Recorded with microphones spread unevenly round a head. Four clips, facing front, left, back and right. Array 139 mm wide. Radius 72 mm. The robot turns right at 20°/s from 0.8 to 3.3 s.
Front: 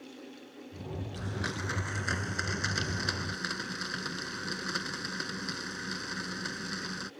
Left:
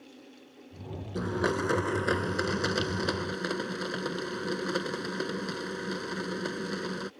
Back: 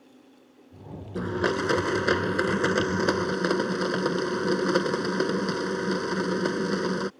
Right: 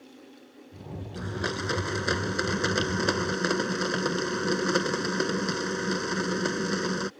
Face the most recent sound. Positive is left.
turn(degrees=-160)